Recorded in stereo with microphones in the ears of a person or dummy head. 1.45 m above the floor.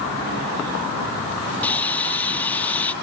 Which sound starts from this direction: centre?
Sawing, at 1.6 s.